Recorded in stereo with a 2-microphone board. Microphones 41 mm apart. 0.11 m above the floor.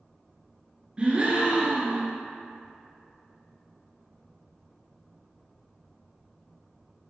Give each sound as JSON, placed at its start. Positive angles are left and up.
{"t": 1.0, "sound": "a gasp", "side_deg": -25, "distance_m": 1.4}